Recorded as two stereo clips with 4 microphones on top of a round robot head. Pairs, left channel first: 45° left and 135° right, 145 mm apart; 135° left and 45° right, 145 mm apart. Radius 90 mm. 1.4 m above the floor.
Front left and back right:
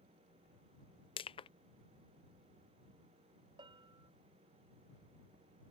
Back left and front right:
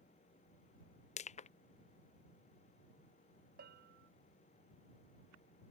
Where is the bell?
70° right.